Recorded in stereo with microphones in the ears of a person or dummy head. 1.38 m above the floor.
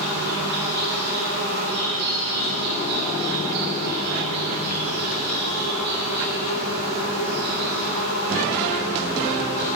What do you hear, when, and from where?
0.0 s an insect: 50° right (ahead or behind), 1.5 m